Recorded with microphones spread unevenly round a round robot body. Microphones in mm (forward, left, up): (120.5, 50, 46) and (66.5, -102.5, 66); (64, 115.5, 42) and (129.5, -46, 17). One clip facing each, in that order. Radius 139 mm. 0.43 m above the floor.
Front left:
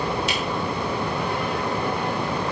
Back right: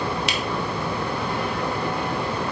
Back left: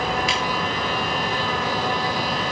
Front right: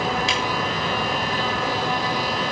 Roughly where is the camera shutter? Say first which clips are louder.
Front left 1 dB, even; behind right.